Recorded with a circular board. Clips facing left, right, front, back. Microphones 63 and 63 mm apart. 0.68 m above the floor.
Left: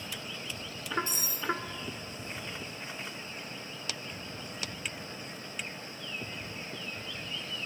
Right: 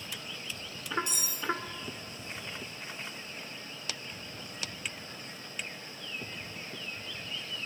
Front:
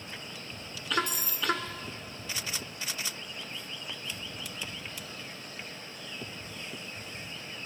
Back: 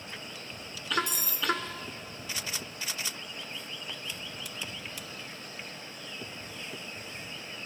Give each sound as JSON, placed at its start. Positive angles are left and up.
{"t": 1.1, "sound": "cutlery clinking", "azimuth_deg": 35, "distance_m": 0.7}